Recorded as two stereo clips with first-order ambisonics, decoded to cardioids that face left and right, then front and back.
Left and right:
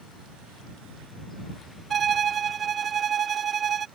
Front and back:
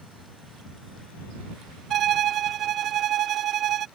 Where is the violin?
140° right.